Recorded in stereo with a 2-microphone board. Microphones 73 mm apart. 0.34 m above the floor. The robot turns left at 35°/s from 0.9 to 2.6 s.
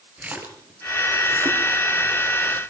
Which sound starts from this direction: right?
A splash, at 0.2 s.